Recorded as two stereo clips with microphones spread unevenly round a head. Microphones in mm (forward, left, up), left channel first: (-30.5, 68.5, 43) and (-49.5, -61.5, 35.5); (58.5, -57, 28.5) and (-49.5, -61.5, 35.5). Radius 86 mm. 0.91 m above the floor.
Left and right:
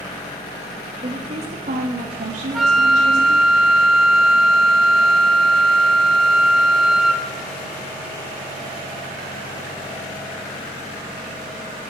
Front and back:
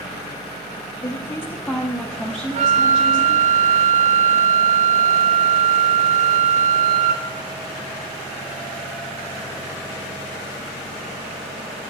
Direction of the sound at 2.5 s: 170° left.